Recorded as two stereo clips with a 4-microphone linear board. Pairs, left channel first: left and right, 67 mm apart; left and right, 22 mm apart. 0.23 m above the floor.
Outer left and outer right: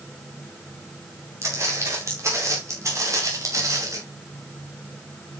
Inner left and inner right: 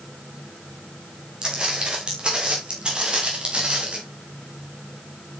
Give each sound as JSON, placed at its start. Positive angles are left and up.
{"t": 1.4, "sound": "footsteps", "side_deg": -40, "distance_m": 6.5}